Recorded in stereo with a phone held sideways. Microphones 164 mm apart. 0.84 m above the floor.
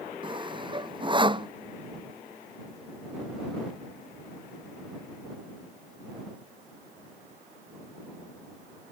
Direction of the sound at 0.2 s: 30° right (ahead or behind).